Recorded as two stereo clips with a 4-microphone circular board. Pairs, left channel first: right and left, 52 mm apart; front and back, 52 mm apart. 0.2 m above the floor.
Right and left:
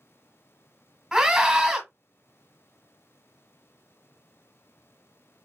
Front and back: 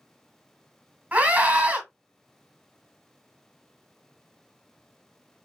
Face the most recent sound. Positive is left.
turn(degrees=165)